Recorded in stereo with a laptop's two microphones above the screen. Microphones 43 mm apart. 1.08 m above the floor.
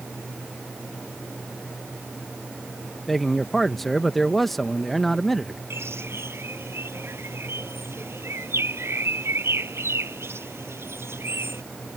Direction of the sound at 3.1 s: 5° left (ahead or behind).